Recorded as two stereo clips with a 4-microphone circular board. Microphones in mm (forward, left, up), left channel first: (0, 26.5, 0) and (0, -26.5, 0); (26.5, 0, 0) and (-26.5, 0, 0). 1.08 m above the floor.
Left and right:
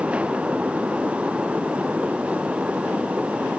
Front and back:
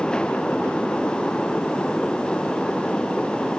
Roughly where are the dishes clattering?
I don't hear dishes clattering.